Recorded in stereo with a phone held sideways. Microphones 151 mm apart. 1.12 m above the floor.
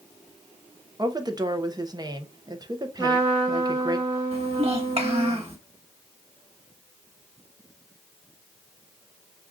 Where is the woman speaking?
25° right (ahead or behind), 0.6 m.